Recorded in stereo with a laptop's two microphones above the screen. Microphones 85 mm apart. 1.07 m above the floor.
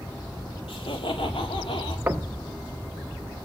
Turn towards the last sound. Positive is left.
turn(degrees=-20)  # may be behind; listen again after turning